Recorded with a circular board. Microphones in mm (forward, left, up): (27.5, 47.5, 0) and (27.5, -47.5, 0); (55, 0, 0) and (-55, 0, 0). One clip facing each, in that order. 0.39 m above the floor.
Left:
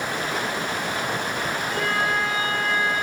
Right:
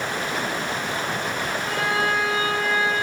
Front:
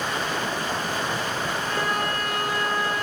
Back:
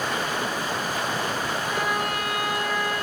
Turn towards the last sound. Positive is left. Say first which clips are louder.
# right 2 dB, even
turn(degrees=-105)